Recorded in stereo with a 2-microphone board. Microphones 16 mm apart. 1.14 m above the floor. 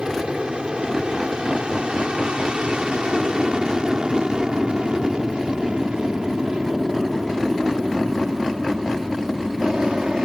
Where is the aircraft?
70° right (ahead or behind); by 10.2 s 60° right (ahead or behind).